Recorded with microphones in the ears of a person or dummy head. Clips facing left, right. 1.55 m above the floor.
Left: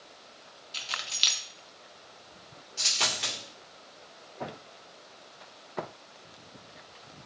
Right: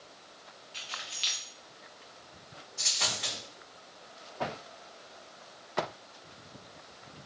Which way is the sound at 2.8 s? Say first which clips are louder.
Left 3 dB; 35° left (ahead or behind).